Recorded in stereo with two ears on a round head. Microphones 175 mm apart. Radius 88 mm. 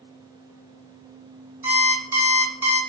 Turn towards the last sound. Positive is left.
turn(degrees=-10)  # may be behind; listen again after turning